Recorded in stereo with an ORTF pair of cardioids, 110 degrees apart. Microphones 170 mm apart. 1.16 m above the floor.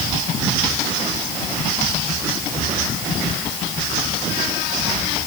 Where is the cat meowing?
I don't hear a cat meowing.